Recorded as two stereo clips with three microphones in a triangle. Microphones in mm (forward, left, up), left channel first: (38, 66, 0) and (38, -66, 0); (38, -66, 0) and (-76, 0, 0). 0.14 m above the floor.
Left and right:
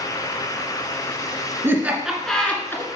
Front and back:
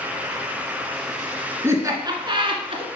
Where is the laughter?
150° right, 1.6 m; by 2.9 s 150° left, 1.8 m.